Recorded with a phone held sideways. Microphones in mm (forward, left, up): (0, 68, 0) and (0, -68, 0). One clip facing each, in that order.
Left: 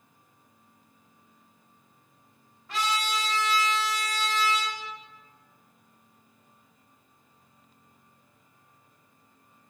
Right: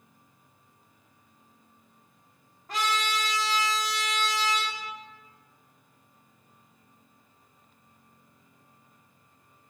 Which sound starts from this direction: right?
A trumpet, at 2.7 s.